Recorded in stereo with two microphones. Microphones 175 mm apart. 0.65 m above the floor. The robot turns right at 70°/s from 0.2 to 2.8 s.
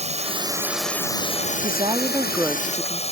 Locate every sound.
0.0 s a drone: 45° right; by 3.1 s 140° left
1.6 s a woman speaking: 65° right; by 3.0 s 20° left